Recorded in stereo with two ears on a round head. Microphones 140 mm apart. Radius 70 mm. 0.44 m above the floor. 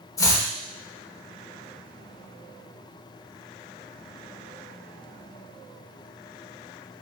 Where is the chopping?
20° left (ahead or behind), 0.8 m.